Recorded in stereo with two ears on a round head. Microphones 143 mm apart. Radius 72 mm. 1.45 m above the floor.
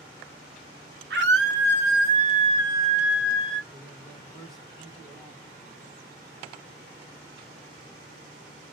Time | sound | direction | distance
1.1 | a scream | 80° right | 1.1 m
3.7 | a man speaking | 5° left (ahead or behind) | 1.3 m